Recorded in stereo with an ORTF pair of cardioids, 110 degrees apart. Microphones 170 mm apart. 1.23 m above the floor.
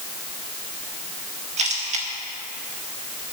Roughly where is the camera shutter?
Ahead right.